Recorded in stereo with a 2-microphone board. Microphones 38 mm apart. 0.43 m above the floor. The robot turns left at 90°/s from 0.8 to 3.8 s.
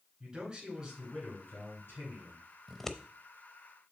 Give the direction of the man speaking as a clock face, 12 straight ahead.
5 o'clock.